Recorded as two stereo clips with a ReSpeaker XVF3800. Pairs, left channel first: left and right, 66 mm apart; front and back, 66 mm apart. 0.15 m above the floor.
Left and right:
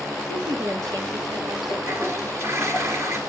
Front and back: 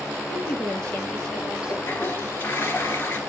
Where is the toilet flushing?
55° right, 2 m.